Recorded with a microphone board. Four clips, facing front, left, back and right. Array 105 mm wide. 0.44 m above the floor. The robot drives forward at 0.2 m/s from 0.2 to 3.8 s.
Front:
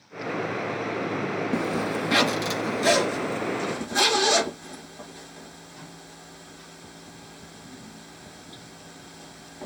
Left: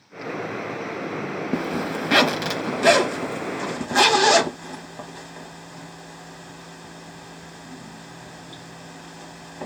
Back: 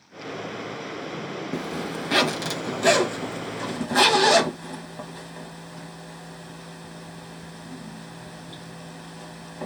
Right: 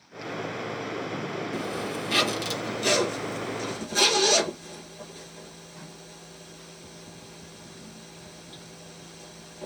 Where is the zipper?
80° left, 0.6 m; by 9.7 s 120° left, 0.7 m.